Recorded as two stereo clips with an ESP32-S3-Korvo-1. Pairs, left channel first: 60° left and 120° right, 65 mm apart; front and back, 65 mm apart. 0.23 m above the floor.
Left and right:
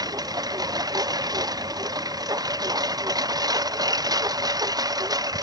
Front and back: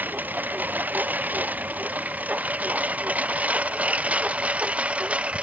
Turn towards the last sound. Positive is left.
turn(degrees=-110)